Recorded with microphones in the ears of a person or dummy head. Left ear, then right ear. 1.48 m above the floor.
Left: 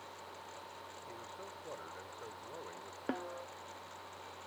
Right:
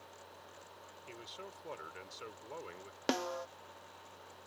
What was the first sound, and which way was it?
A man speaking, 75° right (ahead or behind).